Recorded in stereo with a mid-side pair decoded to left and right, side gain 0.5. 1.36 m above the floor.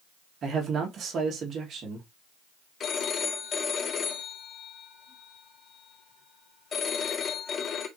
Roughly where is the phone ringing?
Ahead left.